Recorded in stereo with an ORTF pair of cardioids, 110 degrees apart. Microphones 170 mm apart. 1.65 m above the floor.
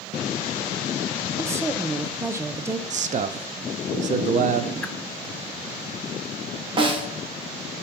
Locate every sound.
1.4 s a woman speaking: 15° right, 1.0 m
2.9 s a man speaking: 45° right, 0.9 m
4.8 s a whoosh: 10° left, 0.7 m
6.8 s a snare drum: 30° right, 1.8 m